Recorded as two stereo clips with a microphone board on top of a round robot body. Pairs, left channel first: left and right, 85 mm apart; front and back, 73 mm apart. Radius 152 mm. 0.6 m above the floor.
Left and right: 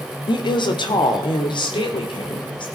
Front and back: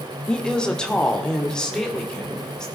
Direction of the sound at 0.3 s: 80° left.